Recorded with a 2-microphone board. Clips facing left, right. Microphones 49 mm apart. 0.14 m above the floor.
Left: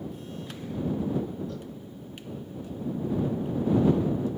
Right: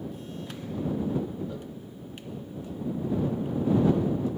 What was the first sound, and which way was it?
A cowbell, 15° right (ahead or behind).